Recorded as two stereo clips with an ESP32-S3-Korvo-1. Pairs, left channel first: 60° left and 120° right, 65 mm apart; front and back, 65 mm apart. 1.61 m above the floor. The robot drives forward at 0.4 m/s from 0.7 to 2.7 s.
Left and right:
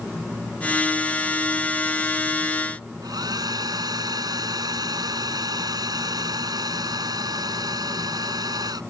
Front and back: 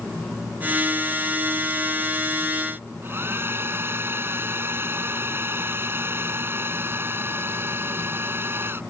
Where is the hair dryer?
125° right.